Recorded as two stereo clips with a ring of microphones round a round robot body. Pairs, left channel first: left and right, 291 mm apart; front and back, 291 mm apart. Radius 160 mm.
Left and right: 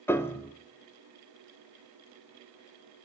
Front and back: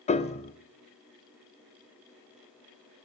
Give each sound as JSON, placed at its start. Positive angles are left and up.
{"t": 0.1, "sound": "a piano", "azimuth_deg": 20, "distance_m": 0.7}